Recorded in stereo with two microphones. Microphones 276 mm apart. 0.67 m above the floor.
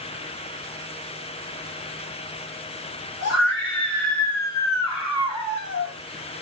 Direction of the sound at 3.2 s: 65° left (ahead or behind).